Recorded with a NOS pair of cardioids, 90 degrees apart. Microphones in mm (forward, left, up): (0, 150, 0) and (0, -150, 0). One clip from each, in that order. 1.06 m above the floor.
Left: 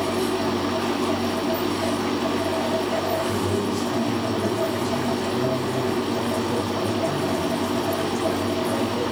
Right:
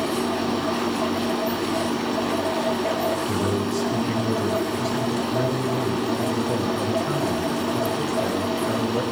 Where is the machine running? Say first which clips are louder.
Left 1 dB; 5° right, 7.5 m.